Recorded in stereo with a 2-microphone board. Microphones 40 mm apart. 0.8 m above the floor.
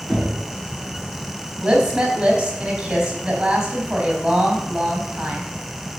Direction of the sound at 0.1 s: 5° left (ahead or behind).